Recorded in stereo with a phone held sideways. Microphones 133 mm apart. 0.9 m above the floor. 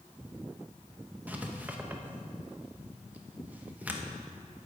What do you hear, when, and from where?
1.3 s writing: 10° right (ahead or behind), 0.8 m